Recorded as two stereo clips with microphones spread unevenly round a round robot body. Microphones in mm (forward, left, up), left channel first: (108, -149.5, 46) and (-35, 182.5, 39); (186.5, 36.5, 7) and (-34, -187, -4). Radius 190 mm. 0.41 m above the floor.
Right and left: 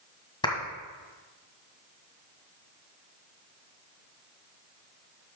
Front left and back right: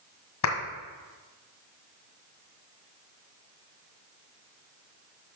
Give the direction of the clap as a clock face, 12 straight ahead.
12 o'clock.